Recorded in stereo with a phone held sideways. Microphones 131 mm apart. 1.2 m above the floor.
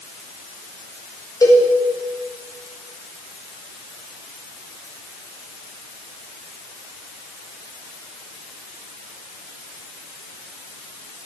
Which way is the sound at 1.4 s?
30° left (ahead or behind).